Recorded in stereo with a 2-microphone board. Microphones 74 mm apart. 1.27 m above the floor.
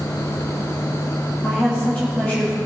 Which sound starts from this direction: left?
A woman speaking, at 1.4 s.